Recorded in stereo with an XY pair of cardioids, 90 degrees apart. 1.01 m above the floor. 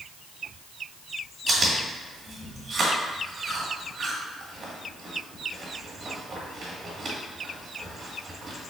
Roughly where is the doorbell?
I don't hear a doorbell.